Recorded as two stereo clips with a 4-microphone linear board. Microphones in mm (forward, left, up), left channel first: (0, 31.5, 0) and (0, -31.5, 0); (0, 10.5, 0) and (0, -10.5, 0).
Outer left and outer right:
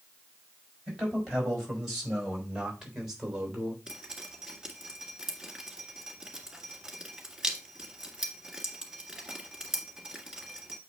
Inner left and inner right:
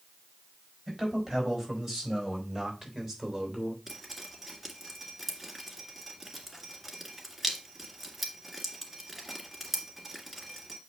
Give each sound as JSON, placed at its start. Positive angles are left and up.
{"t": 0.9, "sound": "a man speaking", "side_deg": -10, "distance_m": 5.5}
{"t": 3.9, "sound": "dripping", "side_deg": -10, "distance_m": 2.0}